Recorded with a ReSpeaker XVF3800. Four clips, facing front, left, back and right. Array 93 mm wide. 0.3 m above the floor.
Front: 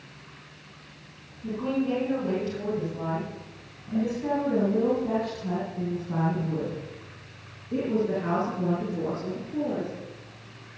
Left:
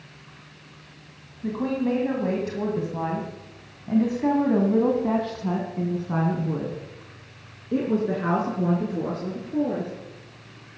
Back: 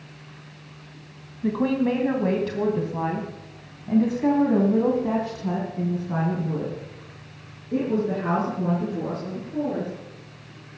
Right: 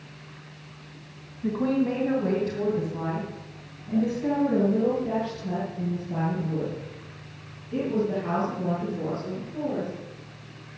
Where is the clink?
I don't hear a clink.